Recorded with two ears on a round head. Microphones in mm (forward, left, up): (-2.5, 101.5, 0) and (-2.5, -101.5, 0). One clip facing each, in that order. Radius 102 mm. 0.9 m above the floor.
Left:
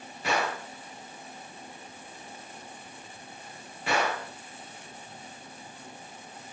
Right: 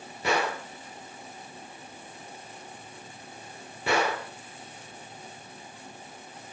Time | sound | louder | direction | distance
0.2 | a gunshot | right 2 dB | 85° right | 7.5 m